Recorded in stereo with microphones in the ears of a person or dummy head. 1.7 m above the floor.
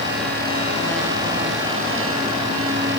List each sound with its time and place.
Only background noise.